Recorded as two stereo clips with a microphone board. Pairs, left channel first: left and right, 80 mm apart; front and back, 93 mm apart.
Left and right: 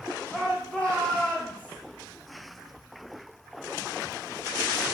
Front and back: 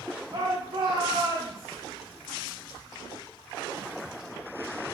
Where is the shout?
175° left, 2 m; by 1.8 s 165° left, 4 m.